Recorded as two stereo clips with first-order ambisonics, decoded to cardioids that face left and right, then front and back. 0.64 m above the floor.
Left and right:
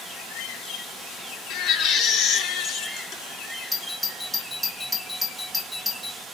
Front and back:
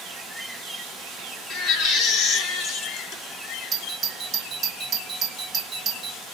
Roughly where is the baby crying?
Ahead left.